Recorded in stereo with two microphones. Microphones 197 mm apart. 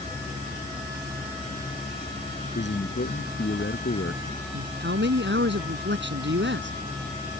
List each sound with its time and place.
2.5 s a man speaking: 80° left; by 4.2 s 75° left (ahead or behind)
4.5 s a man speaking: 75° right (ahead or behind)